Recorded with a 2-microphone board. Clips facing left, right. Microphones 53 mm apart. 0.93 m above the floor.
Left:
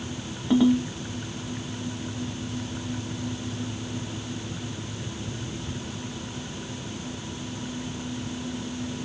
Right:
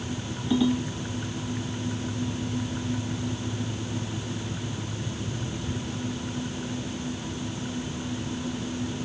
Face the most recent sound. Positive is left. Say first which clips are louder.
# left 4 dB
turn(degrees=50)  # may be behind; listen again after turning